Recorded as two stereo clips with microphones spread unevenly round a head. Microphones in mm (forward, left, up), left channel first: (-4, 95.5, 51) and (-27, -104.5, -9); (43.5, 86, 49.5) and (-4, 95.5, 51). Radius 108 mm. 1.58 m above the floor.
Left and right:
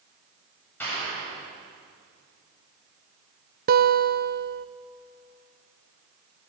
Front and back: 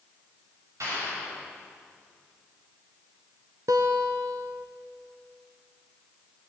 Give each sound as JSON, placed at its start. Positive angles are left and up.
{"t": 0.8, "sound": "a clap", "azimuth_deg": 165, "distance_m": 8.5}
{"t": 3.7, "sound": "a guitar", "azimuth_deg": -145, "distance_m": 0.9}